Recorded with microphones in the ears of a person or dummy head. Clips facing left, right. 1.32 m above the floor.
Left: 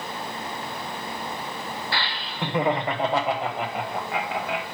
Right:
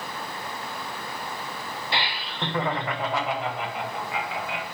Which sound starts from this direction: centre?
Laughter, at 1.9 s.